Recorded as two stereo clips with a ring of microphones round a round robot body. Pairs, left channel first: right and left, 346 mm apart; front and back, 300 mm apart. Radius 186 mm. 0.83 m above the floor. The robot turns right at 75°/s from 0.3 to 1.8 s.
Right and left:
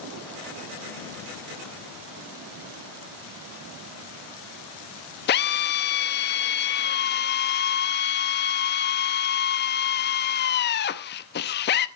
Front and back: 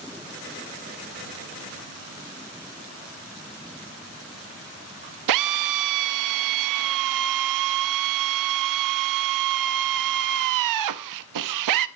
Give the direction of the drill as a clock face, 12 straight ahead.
5 o'clock.